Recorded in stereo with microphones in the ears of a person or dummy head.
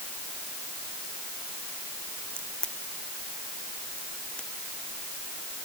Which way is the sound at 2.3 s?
5° left (ahead or behind).